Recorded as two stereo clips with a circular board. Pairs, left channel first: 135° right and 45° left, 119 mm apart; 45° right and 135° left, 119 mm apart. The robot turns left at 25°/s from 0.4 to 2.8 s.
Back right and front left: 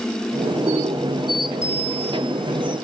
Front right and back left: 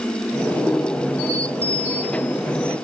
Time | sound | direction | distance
1.6 | a bicycle bell | 160° left | 8 m